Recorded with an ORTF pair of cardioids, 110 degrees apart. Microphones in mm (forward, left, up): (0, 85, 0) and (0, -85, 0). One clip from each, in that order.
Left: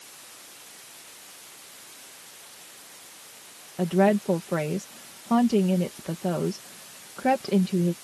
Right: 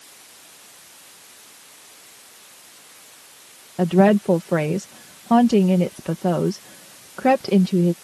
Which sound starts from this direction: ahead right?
A woman speaking, at 3.8 s.